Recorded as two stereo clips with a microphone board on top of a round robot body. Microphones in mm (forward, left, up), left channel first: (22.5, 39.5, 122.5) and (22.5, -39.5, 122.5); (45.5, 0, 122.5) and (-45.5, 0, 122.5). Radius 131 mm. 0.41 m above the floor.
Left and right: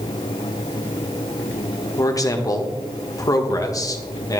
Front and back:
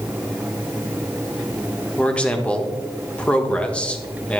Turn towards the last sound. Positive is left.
turn(degrees=75)